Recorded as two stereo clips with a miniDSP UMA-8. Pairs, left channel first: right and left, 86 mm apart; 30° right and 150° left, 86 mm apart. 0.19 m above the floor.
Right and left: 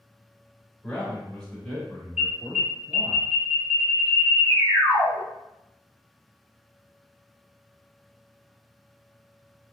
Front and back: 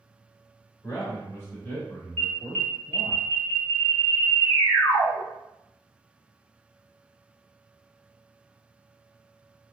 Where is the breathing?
I don't hear breathing.